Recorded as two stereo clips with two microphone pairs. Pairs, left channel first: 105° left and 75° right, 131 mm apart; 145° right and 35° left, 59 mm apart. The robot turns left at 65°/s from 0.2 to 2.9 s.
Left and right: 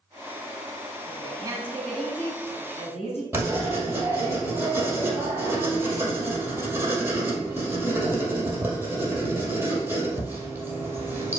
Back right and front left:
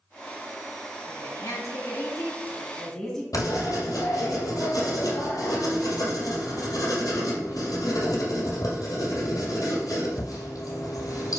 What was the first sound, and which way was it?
A woman speaking, 105° right.